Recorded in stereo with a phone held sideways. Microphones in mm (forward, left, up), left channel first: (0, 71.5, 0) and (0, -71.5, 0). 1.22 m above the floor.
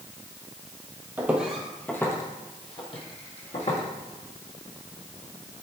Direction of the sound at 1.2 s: 15° right (ahead or behind).